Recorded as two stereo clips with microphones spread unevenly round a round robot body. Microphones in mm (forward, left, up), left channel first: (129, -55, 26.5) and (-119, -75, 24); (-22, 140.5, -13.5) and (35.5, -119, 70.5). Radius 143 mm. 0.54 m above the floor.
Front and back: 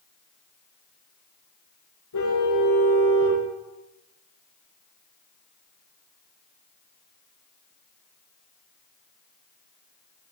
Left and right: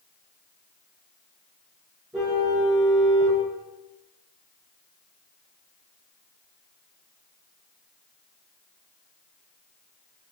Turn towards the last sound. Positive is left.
turn(degrees=5)